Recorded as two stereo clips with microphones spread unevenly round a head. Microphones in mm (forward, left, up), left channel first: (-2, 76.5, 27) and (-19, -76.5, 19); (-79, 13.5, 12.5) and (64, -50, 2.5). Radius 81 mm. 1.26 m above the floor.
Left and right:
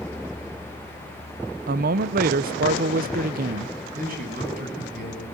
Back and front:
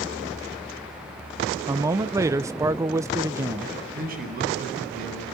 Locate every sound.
1.7 s a man speaking: 90° right, 1.0 m
4.0 s a man speaking: 55° right, 10 m